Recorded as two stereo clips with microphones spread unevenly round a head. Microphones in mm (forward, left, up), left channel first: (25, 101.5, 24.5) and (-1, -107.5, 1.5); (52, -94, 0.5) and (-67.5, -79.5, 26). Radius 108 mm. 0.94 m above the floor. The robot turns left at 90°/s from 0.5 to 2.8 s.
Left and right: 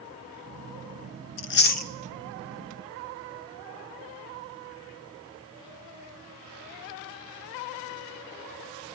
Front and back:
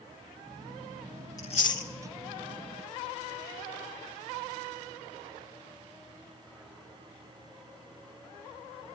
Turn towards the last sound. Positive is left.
turn(degrees=-60)